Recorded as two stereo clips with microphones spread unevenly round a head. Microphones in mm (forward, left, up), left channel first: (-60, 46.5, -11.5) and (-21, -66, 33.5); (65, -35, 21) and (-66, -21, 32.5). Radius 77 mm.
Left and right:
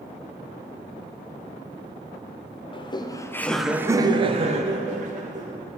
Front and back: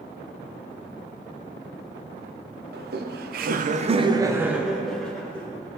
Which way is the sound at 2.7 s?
155° left.